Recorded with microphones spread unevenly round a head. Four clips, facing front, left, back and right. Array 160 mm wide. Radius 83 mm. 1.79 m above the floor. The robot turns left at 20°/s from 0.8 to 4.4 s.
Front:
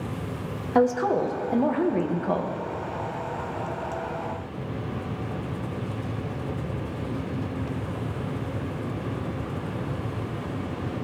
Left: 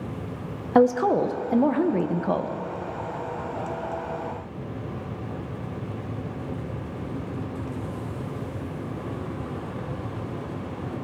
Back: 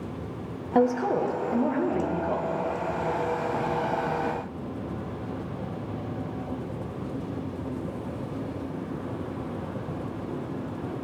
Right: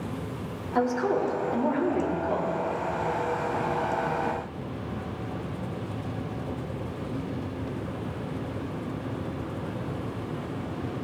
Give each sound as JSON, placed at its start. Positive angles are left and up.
{"t": 0.8, "sound": "a woman speaking", "azimuth_deg": 95, "distance_m": 1.2}